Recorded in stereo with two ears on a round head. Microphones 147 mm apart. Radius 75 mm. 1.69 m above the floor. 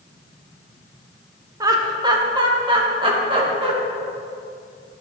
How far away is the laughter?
About 1.4 m.